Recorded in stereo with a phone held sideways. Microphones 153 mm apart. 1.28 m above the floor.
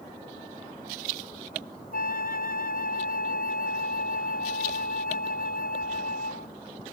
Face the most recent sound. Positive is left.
turn(degrees=70)  # may be behind; listen again after turning